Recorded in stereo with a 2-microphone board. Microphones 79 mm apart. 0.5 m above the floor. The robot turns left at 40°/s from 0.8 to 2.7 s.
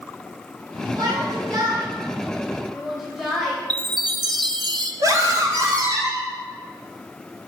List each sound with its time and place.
1.0 s a shout: 60° right (ahead or behind), 2.5 m; by 3.6 s 5° right (ahead or behind), 2.5 m
3.7 s a chime: 60° right (ahead or behind), 0.5 m
5.0 s a scream: 45° right (ahead or behind), 2 m